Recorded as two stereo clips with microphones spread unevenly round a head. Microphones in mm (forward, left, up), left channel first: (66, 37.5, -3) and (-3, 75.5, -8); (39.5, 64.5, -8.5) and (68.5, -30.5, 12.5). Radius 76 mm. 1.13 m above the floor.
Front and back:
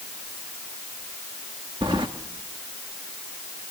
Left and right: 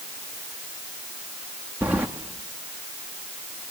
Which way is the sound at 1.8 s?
150° right.